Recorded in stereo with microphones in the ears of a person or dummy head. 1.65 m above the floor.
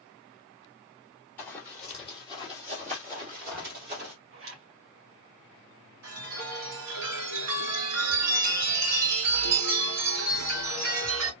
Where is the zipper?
70° right (ahead or behind), 1.9 m.